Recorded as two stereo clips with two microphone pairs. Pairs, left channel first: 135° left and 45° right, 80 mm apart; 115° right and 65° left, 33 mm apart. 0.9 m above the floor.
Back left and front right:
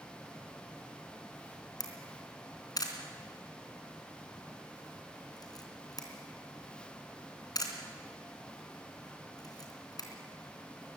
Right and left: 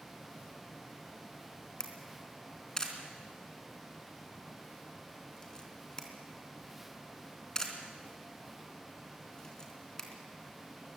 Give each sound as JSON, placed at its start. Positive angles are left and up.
{"t": 1.8, "sound": "a camera shutter", "azimuth_deg": 175, "distance_m": 3.0}